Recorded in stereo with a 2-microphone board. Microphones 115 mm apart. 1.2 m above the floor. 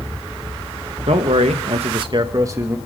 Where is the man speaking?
75° right (ahead or behind), 1.2 m; by 2.8 s 20° right (ahead or behind), 1.7 m.